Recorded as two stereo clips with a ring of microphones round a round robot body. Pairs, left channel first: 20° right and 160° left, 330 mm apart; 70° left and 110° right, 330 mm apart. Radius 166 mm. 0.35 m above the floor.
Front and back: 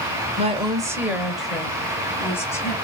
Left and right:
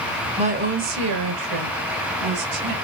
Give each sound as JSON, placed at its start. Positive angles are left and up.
{"t": 0.4, "sound": "a woman speaking", "azimuth_deg": -165, "distance_m": 1.1}